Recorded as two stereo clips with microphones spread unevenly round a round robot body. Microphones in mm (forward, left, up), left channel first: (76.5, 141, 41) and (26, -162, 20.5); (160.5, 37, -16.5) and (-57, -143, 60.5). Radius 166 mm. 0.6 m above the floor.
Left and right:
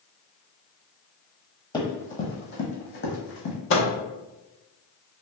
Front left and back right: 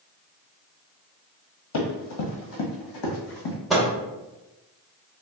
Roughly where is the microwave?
Left.